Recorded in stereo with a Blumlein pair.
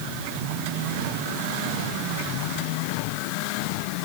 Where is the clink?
I don't hear a clink.